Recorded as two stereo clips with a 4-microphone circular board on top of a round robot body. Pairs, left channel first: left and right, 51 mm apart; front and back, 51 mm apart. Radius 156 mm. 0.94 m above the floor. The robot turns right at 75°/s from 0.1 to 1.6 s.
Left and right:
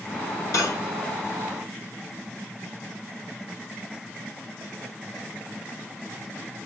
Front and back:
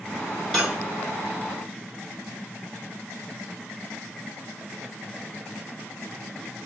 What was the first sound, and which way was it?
Cutlery clinking, 80° left.